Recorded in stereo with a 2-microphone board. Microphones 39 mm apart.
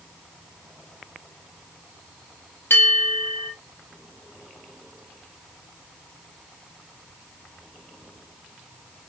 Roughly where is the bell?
Left.